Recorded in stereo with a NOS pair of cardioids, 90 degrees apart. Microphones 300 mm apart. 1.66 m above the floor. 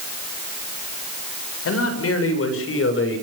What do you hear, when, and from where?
1.6 s a man speaking: 55° left, 8 m; by 3.2 s 45° left, 7 m